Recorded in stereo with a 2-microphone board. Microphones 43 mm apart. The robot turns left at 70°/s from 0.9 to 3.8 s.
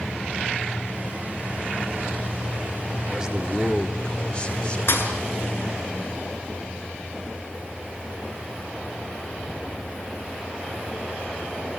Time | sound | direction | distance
3.1 | a man speaking | 150° right | 2.5 m
4.9 | a thud | 65° left (ahead or behind) | 5.5 m